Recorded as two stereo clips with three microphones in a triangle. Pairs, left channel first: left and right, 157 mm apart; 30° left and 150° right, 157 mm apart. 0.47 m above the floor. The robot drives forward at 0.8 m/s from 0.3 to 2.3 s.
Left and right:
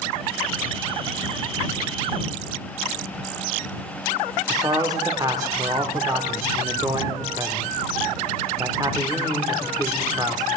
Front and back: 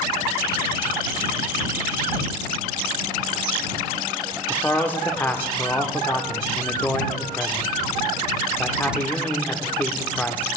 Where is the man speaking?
40° right, 0.8 m.